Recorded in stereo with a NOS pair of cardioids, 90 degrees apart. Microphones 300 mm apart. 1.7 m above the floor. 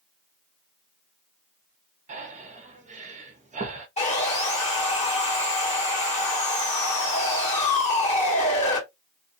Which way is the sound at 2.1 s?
25° right.